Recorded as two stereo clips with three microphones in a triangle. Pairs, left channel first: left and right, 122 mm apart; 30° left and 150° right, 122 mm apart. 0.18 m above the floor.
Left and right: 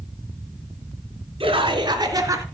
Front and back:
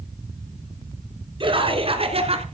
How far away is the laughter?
About 2.5 m.